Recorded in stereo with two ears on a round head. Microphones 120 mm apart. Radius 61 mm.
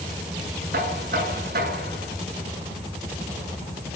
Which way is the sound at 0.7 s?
75° right (ahead or behind).